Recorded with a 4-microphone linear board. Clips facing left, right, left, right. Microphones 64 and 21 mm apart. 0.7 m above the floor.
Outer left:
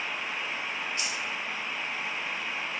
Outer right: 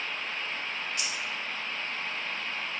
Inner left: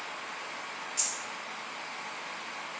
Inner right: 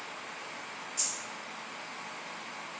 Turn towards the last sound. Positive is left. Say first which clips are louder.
# outer left 1 dB, inner left 1 dB
turn(degrees=30)  # may be behind; listen again after turning